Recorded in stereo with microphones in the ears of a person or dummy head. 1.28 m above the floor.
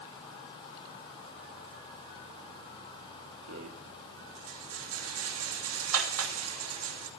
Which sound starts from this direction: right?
A rattle, at 3.5 s.